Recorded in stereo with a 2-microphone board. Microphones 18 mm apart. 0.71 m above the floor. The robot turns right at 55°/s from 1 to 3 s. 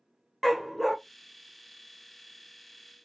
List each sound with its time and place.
0.4 s a dog barking: 5° right (ahead or behind), 0.5 m